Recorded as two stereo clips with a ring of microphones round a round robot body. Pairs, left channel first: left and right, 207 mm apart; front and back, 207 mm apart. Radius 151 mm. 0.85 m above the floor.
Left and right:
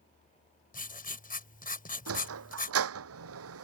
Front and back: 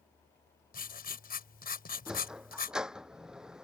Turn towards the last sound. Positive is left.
turn(degrees=-90)